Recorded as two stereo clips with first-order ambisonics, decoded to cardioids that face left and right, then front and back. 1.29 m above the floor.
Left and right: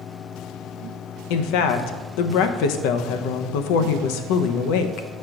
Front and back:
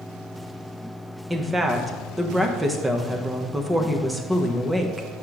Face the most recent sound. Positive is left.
turn(degrees=100)